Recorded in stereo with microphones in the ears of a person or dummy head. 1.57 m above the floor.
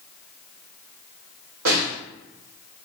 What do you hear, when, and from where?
1.6 s a snare drum: 75° right (ahead or behind), 1.4 m